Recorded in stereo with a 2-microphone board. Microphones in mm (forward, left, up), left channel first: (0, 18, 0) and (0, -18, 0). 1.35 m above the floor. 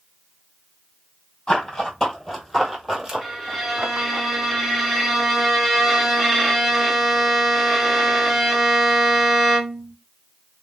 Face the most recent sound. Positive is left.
turn(degrees=-5)  # may be behind; listen again after turning